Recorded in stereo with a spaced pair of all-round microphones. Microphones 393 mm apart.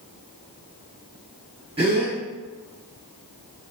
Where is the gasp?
15° right (ahead or behind), 1.3 m.